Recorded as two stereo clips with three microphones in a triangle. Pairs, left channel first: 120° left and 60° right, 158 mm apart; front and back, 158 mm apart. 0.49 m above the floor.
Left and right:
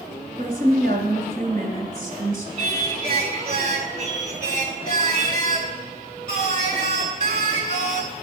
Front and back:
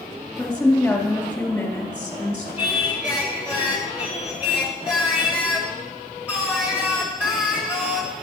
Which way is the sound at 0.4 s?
80° right.